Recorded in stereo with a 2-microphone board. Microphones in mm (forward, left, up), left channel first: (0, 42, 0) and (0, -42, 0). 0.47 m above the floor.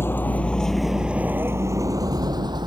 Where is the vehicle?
30° left (ahead or behind); by 2.7 s 60° right (ahead or behind).